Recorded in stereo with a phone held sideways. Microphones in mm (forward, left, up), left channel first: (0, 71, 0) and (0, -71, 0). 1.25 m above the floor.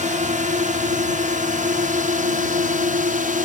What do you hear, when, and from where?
0.0 s a drone: 60° right (ahead or behind); by 3.5 s 65° right (ahead or behind)